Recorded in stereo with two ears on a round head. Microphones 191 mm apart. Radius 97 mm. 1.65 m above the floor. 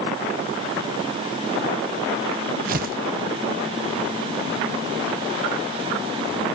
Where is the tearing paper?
45° right (ahead or behind), 0.7 m.